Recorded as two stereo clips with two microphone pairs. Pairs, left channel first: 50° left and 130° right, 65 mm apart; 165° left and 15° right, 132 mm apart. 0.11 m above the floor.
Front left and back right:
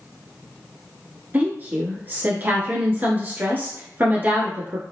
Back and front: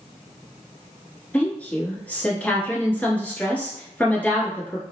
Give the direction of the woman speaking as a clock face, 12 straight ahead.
4 o'clock.